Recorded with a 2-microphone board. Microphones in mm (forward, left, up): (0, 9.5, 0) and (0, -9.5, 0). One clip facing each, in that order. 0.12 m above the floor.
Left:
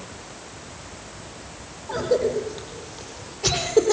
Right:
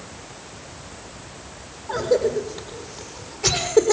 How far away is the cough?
About 5 m.